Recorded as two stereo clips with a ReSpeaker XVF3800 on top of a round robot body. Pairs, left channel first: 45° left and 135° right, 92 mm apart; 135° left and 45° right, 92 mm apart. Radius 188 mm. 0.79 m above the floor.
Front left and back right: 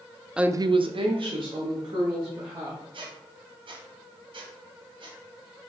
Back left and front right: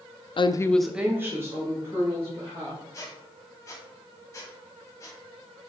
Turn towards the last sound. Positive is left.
turn(degrees=-165)